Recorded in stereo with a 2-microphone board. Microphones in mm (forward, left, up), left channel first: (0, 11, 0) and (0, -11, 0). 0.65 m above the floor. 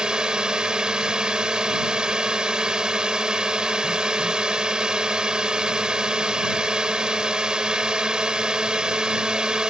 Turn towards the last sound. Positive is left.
turn(degrees=-30)  # may be behind; listen again after turning